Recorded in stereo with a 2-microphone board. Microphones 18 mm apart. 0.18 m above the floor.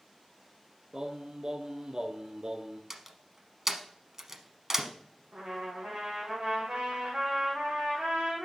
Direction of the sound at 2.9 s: 25° right (ahead or behind).